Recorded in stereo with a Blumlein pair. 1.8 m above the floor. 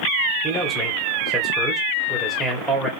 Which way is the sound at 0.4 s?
Straight ahead.